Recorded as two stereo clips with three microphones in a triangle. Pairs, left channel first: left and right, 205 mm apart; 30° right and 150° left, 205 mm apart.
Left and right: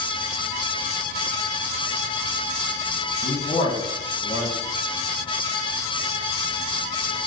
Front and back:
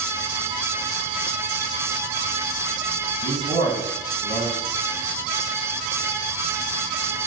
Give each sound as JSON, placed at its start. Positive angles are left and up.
{"t": 3.2, "sound": "a man speaking", "azimuth_deg": 120, "distance_m": 1.2}